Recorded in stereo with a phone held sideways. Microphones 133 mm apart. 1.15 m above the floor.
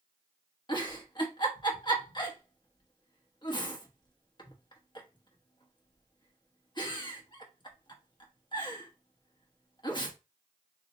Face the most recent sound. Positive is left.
turn(degrees=35)  # may be behind; listen again after turning